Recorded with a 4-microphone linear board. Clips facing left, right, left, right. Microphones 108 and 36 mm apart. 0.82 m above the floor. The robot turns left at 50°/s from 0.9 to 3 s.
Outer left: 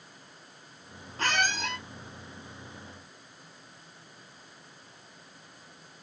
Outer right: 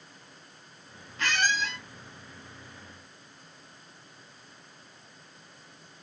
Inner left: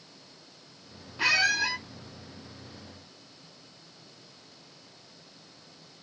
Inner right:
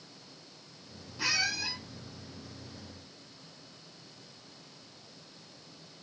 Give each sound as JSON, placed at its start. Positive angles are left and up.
{"t": 1.2, "sound": "a squeak", "azimuth_deg": 140, "distance_m": 0.8}